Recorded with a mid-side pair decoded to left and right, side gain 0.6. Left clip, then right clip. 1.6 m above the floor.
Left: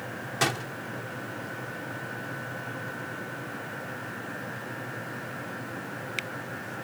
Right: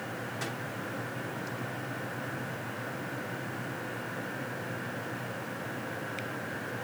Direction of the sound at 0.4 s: 60° left.